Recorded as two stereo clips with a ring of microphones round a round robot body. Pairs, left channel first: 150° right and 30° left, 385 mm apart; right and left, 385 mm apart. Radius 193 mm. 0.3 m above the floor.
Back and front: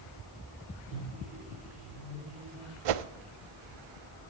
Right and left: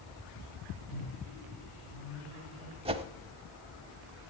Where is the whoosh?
15° left, 0.7 m.